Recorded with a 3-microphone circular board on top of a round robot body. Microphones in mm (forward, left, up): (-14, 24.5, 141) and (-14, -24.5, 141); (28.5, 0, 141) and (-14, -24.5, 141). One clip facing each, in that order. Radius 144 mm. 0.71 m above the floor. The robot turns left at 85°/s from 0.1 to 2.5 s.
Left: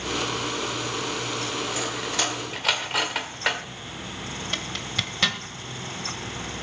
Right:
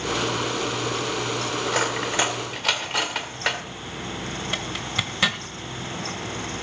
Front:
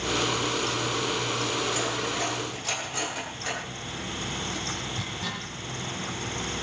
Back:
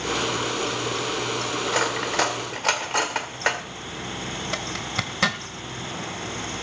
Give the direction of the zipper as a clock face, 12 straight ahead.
6 o'clock.